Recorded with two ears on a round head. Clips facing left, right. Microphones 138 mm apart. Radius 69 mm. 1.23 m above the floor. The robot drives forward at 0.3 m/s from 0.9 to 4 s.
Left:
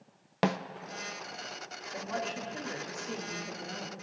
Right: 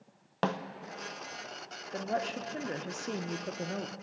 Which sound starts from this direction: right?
A woman speaking, at 1.9 s.